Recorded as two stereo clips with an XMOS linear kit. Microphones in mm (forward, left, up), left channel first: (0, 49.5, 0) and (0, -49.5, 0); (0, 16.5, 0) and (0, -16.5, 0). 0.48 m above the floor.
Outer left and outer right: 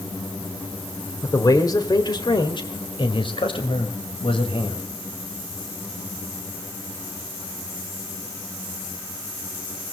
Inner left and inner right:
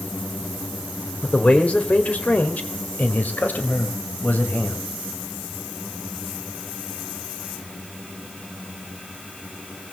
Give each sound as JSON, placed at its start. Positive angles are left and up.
{"t": 1.2, "sound": "a man speaking", "side_deg": 35, "distance_m": 2.5}